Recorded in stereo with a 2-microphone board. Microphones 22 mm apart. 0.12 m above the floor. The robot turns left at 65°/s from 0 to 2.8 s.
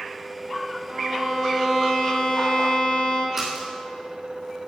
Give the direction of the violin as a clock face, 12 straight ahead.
4 o'clock.